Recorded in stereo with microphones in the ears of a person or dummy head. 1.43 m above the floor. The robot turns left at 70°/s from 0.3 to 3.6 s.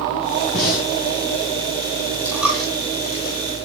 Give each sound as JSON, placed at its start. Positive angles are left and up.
{"t": 0.5, "sound": "breathing", "side_deg": 55, "distance_m": 5.0}
{"t": 2.2, "sound": "a dropped coin", "side_deg": -15, "distance_m": 2.0}